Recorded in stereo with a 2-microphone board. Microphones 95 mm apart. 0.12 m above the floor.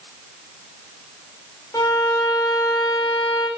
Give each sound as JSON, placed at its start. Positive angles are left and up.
{"t": 1.7, "sound": "a violin", "side_deg": 35, "distance_m": 6.5}